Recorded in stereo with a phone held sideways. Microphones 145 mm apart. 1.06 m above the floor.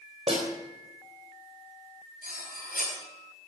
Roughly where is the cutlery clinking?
Left.